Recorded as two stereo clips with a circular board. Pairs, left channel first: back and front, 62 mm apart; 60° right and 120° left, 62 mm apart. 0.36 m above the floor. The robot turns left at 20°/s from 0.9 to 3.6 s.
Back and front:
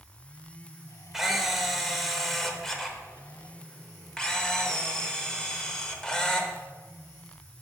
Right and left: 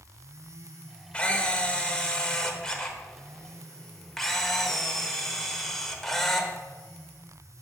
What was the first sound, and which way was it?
A camera shutter, 80° right.